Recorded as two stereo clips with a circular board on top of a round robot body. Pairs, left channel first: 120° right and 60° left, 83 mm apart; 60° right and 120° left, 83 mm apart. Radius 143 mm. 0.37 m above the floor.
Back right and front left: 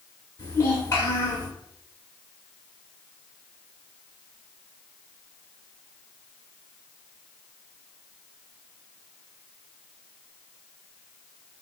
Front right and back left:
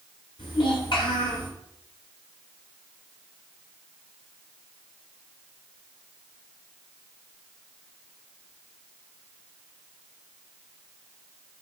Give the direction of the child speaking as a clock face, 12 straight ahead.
2 o'clock.